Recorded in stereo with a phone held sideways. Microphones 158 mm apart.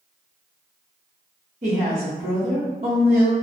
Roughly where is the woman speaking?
Right.